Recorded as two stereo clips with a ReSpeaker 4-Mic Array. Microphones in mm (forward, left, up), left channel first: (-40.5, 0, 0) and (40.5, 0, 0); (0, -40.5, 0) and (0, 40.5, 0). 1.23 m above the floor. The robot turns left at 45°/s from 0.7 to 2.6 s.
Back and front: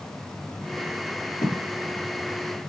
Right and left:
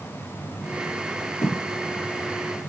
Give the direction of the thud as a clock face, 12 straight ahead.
5 o'clock.